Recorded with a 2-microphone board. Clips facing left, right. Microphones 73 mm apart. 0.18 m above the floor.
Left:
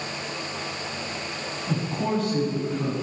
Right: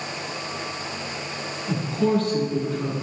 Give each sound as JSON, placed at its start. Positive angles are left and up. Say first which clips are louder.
{"t": 1.7, "sound": "a woman speaking", "louder": "right 4 dB", "side_deg": 10, "distance_m": 4.5}